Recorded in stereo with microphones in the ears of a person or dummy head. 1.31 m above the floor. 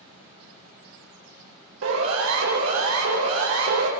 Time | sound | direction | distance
1.8 | a siren | 85° right | 6 m